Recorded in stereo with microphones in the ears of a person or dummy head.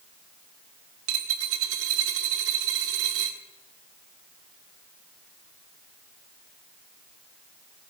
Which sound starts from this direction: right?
A dropped coin, at 1.1 s.